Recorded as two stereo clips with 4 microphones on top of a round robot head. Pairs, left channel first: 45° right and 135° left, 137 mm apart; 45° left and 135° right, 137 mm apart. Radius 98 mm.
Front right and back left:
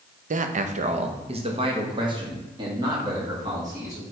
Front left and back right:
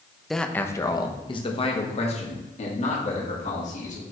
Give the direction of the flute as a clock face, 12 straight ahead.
I don't hear a flute.